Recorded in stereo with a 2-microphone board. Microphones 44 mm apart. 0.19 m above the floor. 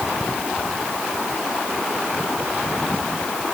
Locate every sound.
Only background noise.